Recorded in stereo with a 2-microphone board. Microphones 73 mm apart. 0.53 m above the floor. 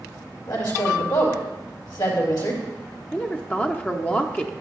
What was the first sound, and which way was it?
A woman speaking, 75° left (ahead or behind).